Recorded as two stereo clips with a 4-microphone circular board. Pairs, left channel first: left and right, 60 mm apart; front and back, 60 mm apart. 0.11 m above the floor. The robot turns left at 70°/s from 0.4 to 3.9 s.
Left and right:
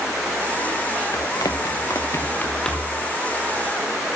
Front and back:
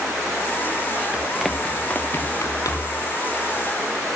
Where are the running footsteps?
110° left, 3 m; by 3.0 s 5° right, 5 m.